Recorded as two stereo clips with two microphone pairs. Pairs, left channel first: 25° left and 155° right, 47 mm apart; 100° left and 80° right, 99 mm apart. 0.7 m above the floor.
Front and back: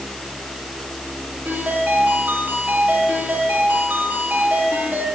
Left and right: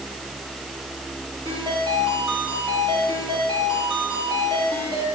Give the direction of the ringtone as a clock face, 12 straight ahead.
4 o'clock.